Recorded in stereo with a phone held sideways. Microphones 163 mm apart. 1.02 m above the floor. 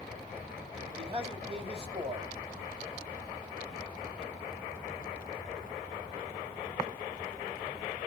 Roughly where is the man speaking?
Right.